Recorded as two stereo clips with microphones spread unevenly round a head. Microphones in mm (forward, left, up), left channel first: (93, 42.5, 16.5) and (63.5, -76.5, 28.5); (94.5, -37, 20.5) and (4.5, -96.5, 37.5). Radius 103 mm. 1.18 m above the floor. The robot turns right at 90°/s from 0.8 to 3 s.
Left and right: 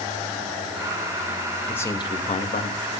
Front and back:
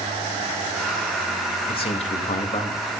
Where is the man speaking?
Straight ahead, 2 m; by 3.0 s 115° left, 2 m.